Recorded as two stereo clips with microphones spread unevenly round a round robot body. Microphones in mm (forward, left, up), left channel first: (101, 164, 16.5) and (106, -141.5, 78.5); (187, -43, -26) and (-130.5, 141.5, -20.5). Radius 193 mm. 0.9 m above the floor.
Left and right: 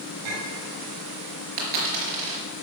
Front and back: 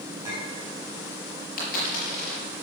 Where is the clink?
130° right, 4.5 m.